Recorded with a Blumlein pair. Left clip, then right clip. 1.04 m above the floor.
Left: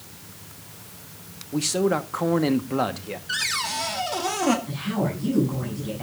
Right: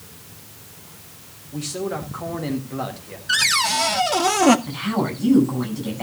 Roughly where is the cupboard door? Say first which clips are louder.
Right 8 dB; right.